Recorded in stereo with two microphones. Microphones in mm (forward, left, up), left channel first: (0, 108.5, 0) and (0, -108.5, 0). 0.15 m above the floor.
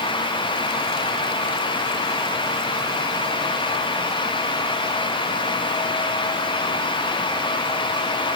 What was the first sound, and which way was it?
Only background noise.